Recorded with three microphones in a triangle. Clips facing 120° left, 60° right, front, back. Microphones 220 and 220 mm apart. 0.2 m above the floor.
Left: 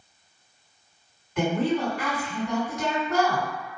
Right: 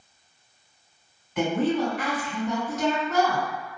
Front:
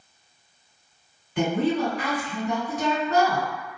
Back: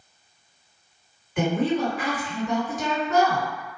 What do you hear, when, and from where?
1.4 s a woman speaking: 25° left, 2.0 m